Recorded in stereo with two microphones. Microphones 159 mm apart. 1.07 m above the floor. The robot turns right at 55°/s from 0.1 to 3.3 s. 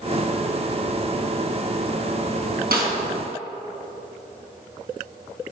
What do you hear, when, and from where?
2.7 s a snare drum: 70° right (ahead or behind), 4 m; by 2.9 s 60° right (ahead or behind), 4 m